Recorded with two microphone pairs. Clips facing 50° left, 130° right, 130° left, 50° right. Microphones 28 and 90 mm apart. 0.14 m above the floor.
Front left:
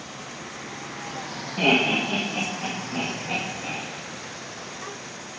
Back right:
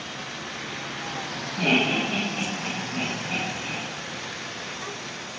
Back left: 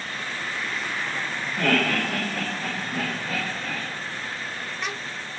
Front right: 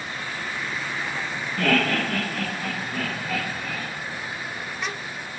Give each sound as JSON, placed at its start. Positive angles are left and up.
{"t": 1.6, "sound": "laughter", "azimuth_deg": 55, "distance_m": 3.5}